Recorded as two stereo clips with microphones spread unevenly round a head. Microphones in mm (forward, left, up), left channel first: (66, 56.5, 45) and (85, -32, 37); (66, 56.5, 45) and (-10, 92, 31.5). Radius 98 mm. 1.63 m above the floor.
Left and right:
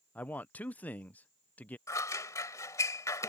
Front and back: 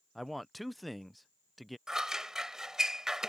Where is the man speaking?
50° left.